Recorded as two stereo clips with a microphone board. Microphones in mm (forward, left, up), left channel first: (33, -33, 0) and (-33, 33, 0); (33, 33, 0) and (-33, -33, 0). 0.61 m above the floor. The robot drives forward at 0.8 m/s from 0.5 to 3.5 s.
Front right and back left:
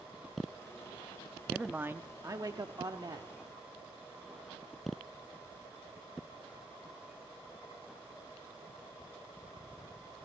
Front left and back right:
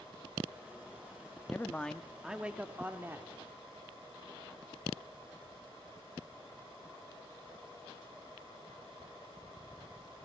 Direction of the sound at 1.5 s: 65° left.